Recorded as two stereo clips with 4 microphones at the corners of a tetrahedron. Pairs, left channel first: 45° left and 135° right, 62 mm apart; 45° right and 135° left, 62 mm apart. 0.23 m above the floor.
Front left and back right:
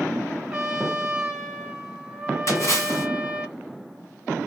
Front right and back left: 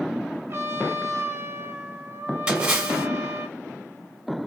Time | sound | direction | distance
0.5 | a trumpet | 155° left | 0.9 m
2.5 | a splash | 65° left | 1.6 m